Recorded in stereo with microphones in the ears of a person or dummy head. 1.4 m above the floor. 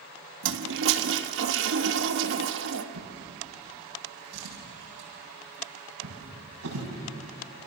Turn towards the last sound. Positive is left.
turn(degrees=-85)